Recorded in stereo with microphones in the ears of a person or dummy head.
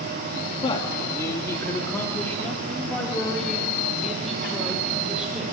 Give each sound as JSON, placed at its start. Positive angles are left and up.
{"t": 0.6, "sound": "a man speaking", "side_deg": 25, "distance_m": 2.5}